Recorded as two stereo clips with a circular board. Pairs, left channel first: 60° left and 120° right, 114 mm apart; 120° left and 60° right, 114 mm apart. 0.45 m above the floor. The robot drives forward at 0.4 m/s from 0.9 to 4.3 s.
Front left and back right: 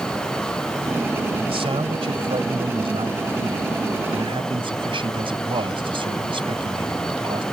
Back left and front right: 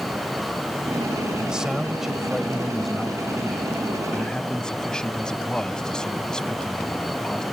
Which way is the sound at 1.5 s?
145° right.